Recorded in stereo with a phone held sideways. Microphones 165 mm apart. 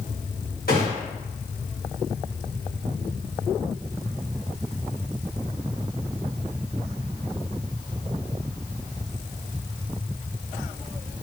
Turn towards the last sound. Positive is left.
turn(degrees=65)  # may be behind; listen again after turning